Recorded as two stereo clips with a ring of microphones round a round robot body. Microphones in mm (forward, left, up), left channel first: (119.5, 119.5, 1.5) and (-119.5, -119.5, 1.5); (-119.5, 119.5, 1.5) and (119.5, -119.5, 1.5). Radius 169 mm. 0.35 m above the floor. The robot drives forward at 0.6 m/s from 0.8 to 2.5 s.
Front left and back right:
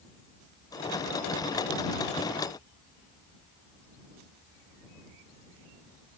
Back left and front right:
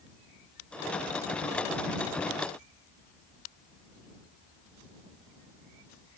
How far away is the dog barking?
No dog barking in this recording.